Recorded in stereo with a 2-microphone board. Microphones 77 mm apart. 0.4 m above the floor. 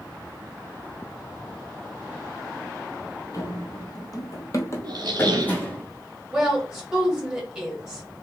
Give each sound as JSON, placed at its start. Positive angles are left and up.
{"t": 3.3, "sound": "running footsteps", "side_deg": 45, "distance_m": 0.7}
{"t": 4.8, "sound": "a squeak", "side_deg": -60, "distance_m": 0.7}
{"t": 6.3, "sound": "a woman speaking", "side_deg": -5, "distance_m": 1.3}